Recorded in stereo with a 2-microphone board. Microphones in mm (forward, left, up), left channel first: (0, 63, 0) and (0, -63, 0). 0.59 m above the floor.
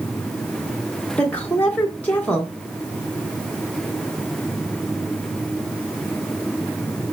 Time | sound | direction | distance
1.2 | a woman speaking | 10° left (ahead or behind) | 0.8 m